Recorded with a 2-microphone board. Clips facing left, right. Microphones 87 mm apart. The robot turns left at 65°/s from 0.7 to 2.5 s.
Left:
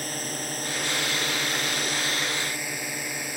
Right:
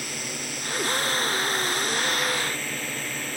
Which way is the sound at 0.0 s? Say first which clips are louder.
Left 2 dB; 130° left.